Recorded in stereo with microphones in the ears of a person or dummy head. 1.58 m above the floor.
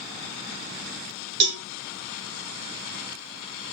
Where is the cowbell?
60° right (ahead or behind), 1.5 m.